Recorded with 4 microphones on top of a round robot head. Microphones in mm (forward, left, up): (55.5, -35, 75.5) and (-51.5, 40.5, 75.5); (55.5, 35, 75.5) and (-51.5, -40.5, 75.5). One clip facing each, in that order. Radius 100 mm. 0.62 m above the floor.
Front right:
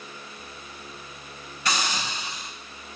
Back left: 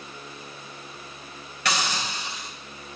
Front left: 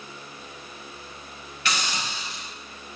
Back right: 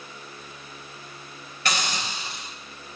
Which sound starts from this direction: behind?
A hiss, at 1.6 s.